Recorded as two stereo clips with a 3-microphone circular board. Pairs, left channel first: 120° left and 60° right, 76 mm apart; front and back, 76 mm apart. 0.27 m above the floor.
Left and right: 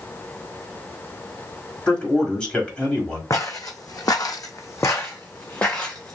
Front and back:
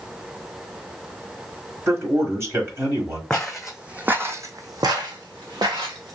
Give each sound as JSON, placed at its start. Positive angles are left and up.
{"t": 1.9, "sound": "a man speaking", "azimuth_deg": -175, "distance_m": 1.2}
{"t": 3.3, "sound": "footsteps", "azimuth_deg": 80, "distance_m": 0.7}